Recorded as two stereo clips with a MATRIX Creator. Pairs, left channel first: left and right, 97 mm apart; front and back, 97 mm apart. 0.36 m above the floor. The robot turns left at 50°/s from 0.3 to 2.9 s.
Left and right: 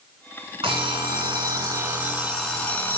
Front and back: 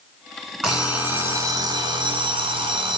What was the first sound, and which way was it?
An alarm clock, 100° right.